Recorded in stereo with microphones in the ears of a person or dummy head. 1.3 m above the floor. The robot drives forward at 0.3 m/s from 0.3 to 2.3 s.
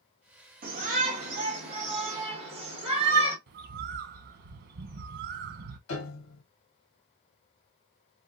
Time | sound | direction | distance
0.6 | a shout | 40° right (ahead or behind) | 1.3 m
3.5 | a bird | 60° right (ahead or behind) | 0.7 m
5.9 | a piano | 85° left | 0.9 m